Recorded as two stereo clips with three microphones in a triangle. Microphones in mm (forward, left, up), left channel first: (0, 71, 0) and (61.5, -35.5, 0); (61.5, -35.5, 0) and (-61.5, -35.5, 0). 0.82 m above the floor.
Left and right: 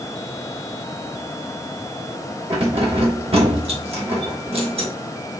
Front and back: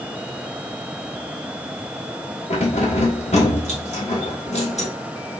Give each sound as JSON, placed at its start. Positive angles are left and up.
{"t": 2.5, "sound": "keys jangling", "azimuth_deg": -20, "distance_m": 1.0}